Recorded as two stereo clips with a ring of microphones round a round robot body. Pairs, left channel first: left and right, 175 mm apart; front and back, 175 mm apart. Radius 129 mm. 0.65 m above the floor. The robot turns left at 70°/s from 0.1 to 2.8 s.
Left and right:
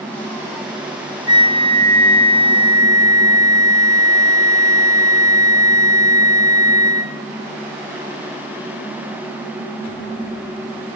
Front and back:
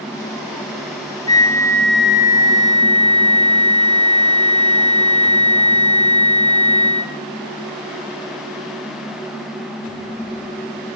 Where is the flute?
40° right, 0.5 m; by 7.1 s 145° right, 0.5 m.